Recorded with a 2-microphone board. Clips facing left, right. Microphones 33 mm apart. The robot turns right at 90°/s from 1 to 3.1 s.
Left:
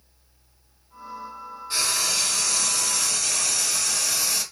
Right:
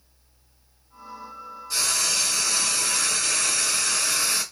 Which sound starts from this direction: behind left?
Frying, at 1.7 s.